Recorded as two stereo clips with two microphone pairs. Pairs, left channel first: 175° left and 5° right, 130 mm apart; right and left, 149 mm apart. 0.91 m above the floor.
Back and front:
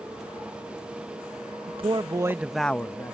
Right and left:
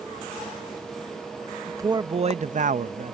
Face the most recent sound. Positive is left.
turn(degrees=110)